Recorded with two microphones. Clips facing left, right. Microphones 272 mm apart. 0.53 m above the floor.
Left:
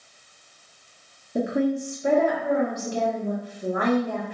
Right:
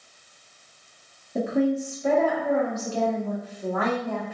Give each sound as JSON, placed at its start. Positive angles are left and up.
{"t": 1.4, "sound": "a woman speaking", "side_deg": 15, "distance_m": 0.7}